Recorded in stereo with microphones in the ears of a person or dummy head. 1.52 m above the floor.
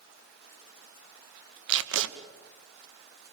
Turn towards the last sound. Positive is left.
turn(degrees=-65)  # may be behind; listen again after turning